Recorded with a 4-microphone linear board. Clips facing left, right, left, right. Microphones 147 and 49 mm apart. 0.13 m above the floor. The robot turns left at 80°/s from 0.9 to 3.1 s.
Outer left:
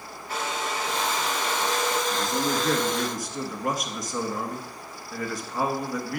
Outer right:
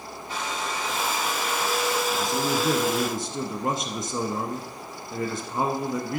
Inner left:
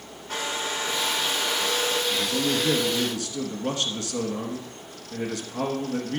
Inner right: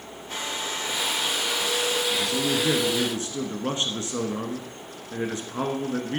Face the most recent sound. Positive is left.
turn(degrees=-60)